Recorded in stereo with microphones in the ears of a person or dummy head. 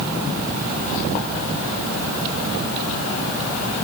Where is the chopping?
I don't hear chopping.